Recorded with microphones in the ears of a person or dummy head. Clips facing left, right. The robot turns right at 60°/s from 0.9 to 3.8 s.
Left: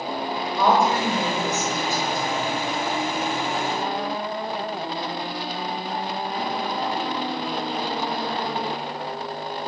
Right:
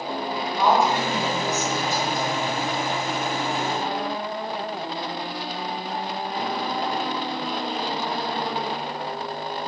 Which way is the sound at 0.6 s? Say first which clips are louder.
Left 1 dB; 65° left.